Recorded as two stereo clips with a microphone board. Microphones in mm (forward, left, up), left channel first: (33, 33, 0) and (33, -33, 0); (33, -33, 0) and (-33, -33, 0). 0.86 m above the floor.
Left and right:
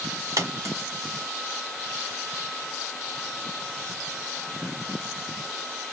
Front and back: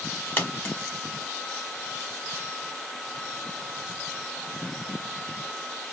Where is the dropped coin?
60° right, 1.7 m.